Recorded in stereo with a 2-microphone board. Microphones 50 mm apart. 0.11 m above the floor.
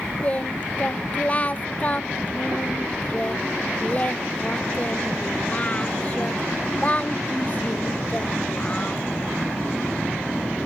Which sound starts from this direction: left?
Singing, at 0.2 s.